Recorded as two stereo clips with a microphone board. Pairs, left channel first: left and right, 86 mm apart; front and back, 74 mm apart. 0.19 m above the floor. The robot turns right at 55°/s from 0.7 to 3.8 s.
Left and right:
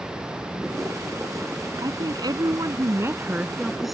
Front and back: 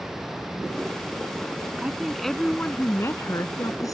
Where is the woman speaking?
110° right; by 4.0 s straight ahead.